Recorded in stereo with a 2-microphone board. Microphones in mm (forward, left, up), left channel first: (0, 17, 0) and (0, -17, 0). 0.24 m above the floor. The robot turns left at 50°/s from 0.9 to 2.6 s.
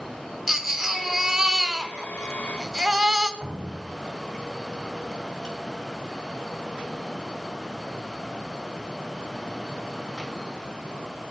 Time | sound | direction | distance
0.5 | a baby crying | 15° right (ahead or behind) | 1.1 m
3.4 | dripping | 20° left (ahead or behind) | 1.7 m